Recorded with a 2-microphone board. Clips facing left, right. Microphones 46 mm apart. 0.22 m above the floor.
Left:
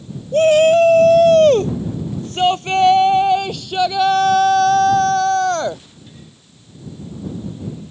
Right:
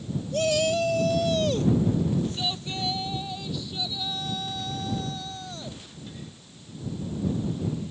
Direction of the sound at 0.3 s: 40° left (ahead or behind).